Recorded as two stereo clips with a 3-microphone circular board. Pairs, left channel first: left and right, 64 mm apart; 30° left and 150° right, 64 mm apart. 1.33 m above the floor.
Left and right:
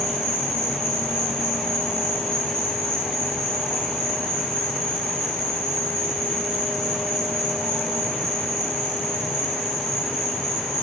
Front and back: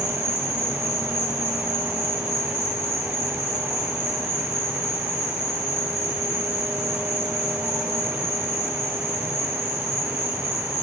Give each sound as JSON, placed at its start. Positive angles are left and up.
{"t": 0.0, "sound": "an insect", "azimuth_deg": -120, "distance_m": 2.0}